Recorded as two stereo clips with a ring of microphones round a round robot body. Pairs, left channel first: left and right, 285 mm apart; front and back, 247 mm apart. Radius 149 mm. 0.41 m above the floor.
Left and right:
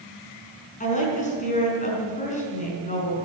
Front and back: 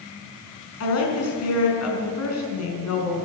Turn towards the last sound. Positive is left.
turn(degrees=25)